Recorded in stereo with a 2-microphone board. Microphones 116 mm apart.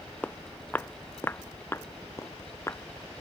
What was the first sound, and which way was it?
Footsteps, 15° left (ahead or behind).